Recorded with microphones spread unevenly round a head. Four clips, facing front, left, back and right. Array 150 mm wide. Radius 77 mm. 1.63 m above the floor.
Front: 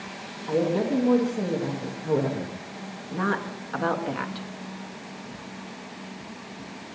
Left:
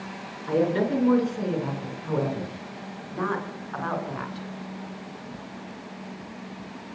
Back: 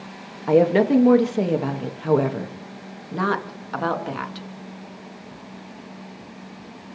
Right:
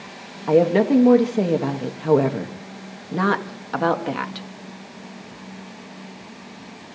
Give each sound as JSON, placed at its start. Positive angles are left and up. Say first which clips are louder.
{"t": 0.5, "sound": "a woman speaking", "louder": "right 7 dB, back 8 dB", "azimuth_deg": -140, "distance_m": 3.0}